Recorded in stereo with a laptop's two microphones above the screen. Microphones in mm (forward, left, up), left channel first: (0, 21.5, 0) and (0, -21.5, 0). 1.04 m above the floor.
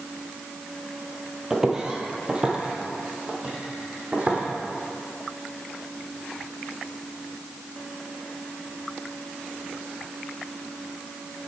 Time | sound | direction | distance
1.5 | footsteps | 10° right (ahead or behind) | 1.0 m